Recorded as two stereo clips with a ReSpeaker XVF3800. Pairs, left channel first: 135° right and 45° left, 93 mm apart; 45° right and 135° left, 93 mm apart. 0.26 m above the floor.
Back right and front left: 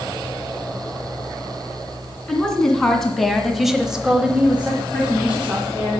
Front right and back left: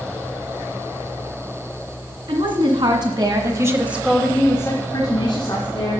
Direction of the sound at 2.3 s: 140° left.